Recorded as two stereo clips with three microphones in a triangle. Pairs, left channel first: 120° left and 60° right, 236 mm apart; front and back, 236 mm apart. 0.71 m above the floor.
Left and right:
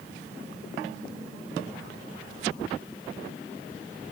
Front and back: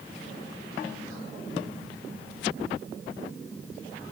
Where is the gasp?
I don't hear a gasp.